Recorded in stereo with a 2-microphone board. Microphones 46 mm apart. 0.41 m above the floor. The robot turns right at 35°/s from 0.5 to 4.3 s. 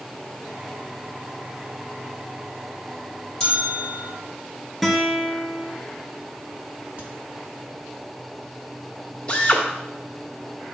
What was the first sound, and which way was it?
A bell, 15° left (ahead or behind).